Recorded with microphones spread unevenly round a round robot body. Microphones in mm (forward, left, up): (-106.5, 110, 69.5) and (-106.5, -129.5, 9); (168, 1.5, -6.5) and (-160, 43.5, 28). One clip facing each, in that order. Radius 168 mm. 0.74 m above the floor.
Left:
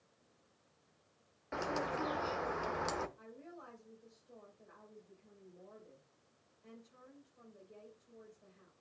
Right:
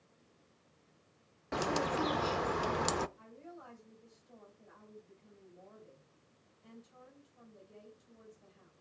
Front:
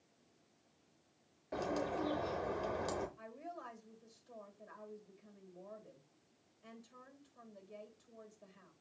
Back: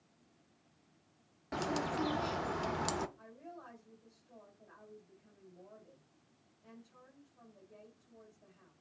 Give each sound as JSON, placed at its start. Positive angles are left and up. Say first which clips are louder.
{"t": 1.5, "sound": "a bird", "louder": "right 5 dB, back 2 dB", "azimuth_deg": -140, "distance_m": 0.5}
{"t": 3.2, "sound": "a woman speaking", "louder": "right 1 dB, front 1 dB", "azimuth_deg": -30, "distance_m": 3.5}